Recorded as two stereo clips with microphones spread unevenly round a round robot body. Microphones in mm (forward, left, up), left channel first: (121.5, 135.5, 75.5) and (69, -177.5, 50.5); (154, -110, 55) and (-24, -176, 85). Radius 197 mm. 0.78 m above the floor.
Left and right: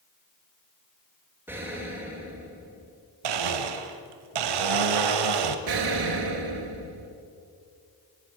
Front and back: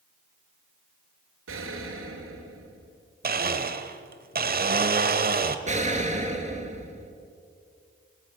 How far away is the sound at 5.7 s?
About 3 m.